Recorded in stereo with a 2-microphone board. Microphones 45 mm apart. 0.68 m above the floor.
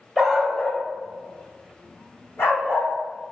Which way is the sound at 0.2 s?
5° right (ahead or behind).